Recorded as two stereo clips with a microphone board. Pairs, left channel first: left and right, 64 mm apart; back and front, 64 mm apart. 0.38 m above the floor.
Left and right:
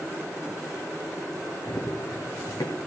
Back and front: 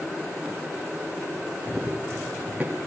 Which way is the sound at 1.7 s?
85° left.